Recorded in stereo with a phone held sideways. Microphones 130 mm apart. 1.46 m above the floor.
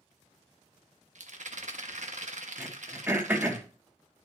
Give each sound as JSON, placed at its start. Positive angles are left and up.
{"t": 1.1, "sound": "a rattle", "side_deg": -65, "distance_m": 1.1}
{"t": 2.6, "sound": "throat clearing", "side_deg": -15, "distance_m": 1.5}